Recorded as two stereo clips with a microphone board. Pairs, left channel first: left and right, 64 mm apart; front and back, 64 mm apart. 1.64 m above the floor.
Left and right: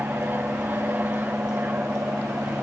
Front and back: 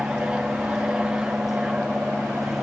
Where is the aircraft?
115° right.